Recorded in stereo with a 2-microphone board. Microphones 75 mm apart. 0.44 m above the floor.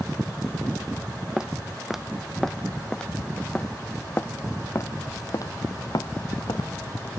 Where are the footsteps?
10° right (ahead or behind); by 6.7 s 70° left (ahead or behind).